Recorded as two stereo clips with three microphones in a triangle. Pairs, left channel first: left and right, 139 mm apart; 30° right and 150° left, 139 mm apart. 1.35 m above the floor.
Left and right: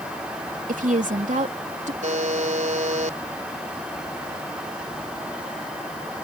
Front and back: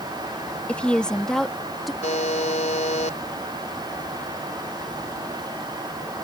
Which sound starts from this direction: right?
A woman speaking, at 0.7 s.